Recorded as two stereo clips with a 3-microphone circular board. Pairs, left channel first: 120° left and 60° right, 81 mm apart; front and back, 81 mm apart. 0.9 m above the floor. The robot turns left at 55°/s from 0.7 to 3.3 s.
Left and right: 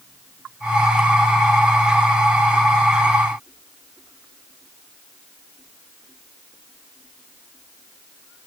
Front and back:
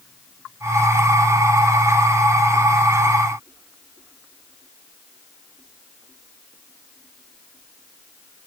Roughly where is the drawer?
I don't hear a drawer.